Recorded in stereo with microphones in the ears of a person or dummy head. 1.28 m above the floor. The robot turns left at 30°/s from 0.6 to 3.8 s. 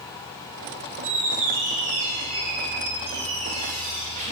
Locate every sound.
1.0 s a squeak: 45° right, 1.5 m; by 4.3 s 125° right, 1.5 m